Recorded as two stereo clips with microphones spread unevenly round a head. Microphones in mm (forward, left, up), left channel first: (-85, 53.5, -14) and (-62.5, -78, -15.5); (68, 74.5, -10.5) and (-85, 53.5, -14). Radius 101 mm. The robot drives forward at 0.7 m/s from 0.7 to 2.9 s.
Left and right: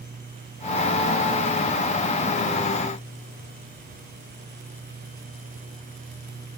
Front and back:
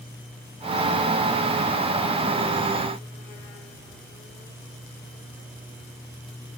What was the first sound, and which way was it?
Only background noise.